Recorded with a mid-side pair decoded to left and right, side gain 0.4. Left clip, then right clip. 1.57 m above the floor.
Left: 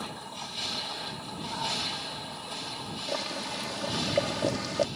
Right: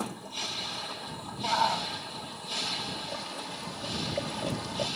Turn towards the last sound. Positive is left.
turn(degrees=50)